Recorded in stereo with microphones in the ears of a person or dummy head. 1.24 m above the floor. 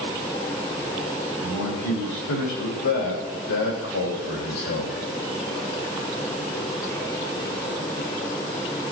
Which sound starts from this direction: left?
A man speaking, at 1.4 s.